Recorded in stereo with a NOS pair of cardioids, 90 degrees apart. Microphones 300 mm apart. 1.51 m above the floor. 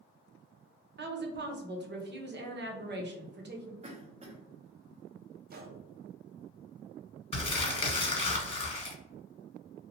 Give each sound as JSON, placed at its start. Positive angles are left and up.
{"t": 1.0, "sound": "a woman speaking", "azimuth_deg": -35, "distance_m": 1.0}
{"t": 3.8, "sound": "a cough", "azimuth_deg": -20, "distance_m": 0.8}
{"t": 5.5, "sound": "a gunshot", "azimuth_deg": -30, "distance_m": 0.6}
{"t": 7.3, "sound": "crumpling", "azimuth_deg": 20, "distance_m": 1.5}